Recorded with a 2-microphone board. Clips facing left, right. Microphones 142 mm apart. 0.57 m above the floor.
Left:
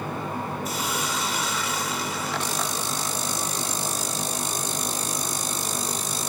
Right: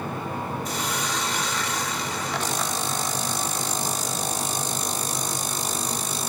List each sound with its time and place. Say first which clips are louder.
0.7 s a hiss: even; 5° left (ahead or behind), 1.5 m